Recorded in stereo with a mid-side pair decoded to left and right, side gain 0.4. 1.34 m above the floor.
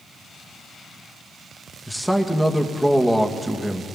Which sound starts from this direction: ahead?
A man speaking, at 1.9 s.